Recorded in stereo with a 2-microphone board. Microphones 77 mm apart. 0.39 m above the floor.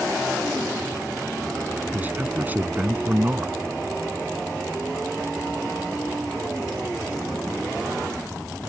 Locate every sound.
1.9 s a man speaking: 25° right (ahead or behind)